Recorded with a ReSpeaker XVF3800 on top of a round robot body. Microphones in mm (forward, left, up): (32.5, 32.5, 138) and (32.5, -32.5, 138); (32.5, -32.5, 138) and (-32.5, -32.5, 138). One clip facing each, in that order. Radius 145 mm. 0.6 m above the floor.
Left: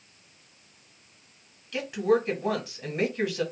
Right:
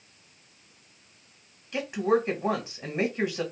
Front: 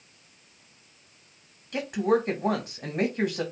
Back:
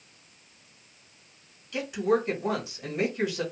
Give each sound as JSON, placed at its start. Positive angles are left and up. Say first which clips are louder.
{"t": 1.7, "sound": "a woman speaking", "louder": "left 1 dB, front 1 dB", "azimuth_deg": -30, "distance_m": 1.6}